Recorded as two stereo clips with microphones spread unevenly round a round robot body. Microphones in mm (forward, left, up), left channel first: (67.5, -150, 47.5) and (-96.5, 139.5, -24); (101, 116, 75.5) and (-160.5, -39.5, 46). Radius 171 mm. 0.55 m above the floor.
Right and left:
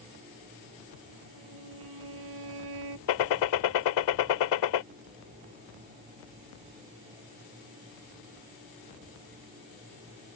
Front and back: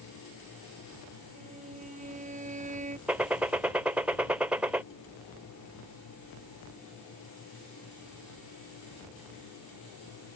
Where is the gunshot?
65° right.